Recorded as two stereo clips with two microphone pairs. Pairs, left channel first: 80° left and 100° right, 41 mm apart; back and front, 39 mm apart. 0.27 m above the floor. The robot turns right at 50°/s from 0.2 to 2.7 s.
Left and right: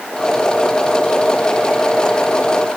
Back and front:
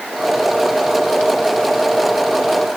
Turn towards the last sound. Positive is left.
No sound to turn to.